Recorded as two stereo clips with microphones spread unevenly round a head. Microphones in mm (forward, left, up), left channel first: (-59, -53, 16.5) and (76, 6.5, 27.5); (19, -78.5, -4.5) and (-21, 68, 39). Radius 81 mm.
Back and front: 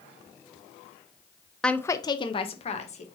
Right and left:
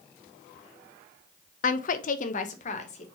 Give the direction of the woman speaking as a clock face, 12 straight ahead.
2 o'clock.